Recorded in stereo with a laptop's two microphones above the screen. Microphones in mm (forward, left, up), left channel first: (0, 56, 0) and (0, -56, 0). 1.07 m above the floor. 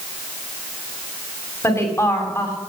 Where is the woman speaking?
25° left (ahead or behind), 2.5 m.